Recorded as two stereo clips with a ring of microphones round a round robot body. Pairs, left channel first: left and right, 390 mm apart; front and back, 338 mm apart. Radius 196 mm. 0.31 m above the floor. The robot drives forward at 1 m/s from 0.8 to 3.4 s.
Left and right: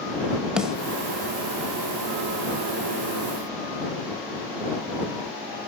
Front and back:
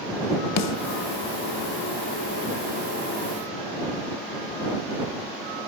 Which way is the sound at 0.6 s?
5° right.